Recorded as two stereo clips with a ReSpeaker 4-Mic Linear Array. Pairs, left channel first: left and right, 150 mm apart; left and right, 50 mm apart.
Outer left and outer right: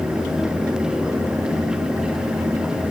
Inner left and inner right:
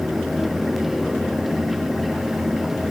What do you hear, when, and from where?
Only background noise.